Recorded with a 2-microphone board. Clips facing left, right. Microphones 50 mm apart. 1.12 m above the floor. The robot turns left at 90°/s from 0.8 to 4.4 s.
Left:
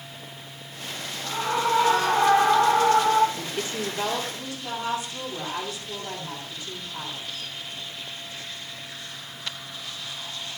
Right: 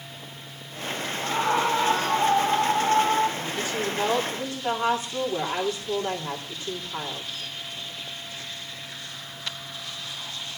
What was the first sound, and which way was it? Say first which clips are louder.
A scream: right 1 dB; 130° right.